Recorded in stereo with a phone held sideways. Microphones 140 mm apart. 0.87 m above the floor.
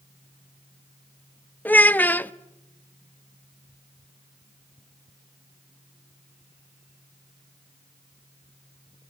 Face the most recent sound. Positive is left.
turn(degrees=15)  # may be behind; listen again after turning